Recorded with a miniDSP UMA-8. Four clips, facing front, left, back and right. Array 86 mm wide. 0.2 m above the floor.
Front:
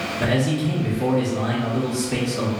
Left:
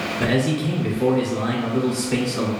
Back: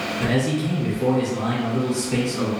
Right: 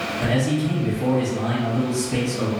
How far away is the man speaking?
About 1.4 m.